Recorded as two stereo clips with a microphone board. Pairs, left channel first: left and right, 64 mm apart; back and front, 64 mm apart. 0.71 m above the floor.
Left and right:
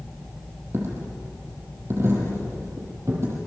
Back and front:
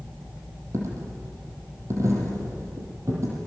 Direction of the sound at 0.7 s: 40° right.